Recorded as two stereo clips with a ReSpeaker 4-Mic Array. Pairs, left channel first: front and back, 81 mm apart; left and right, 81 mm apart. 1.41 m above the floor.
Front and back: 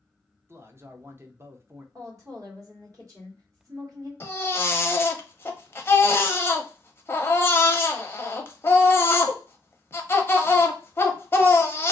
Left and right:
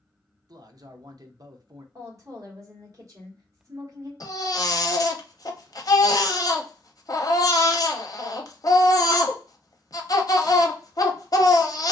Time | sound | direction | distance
0.5 | a man speaking | 125° right | 0.7 m
1.9 | a woman speaking | 140° right | 1.5 m
4.2 | a baby crying | 55° left | 0.6 m